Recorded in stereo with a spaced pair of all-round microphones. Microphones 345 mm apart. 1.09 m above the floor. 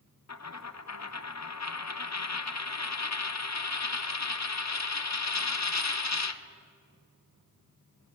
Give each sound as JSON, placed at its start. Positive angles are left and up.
{"t": 0.3, "sound": "a dropped coin", "side_deg": 50, "distance_m": 0.6}